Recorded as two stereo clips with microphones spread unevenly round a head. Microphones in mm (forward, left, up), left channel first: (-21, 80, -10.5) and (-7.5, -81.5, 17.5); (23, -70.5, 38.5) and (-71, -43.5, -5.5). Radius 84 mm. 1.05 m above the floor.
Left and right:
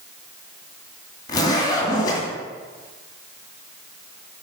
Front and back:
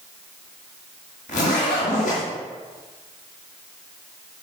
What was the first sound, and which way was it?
A zipper, 25° left.